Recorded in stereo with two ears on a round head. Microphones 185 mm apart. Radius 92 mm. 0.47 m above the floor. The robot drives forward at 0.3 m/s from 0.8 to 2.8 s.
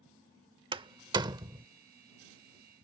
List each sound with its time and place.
0.7 s a door slam: 25° right (ahead or behind); by 1.6 s 20° right (ahead or behind)